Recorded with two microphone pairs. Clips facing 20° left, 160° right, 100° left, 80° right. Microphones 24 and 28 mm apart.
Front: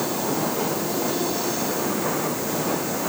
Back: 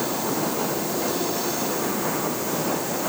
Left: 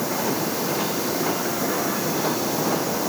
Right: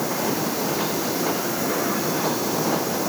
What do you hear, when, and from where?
Only background noise.